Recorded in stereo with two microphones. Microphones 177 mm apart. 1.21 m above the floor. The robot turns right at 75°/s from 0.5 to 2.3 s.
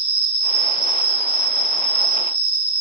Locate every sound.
0.0 s an insect: 145° right, 1.2 m; by 2.8 s 10° right, 1.2 m